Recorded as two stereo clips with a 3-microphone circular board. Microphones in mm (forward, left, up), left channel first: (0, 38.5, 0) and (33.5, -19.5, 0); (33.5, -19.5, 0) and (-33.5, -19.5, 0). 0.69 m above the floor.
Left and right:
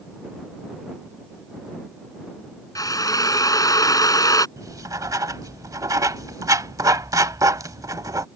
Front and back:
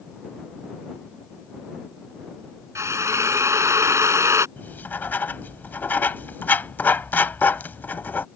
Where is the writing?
60° right.